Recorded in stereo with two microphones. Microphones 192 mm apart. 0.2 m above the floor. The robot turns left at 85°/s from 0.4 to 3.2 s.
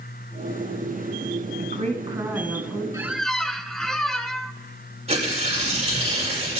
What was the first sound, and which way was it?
A woman speaking, 105° right.